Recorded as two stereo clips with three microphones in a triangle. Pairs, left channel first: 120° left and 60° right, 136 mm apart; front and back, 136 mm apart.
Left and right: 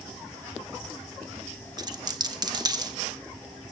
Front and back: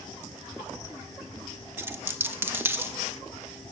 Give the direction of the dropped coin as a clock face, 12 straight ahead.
4 o'clock.